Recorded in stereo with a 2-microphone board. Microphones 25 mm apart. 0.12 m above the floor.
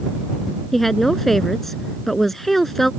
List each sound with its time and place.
0.7 s a woman speaking: 10° left (ahead or behind)